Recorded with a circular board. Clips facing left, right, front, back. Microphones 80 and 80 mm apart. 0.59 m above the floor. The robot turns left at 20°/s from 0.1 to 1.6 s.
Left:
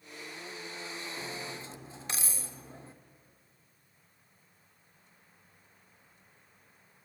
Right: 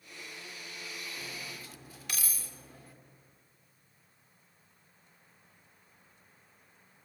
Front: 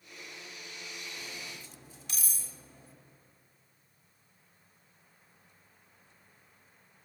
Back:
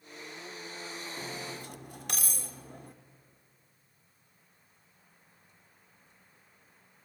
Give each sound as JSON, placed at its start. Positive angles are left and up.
{"t": 1.2, "sound": "cutlery clinking", "azimuth_deg": 160, "distance_m": 0.7}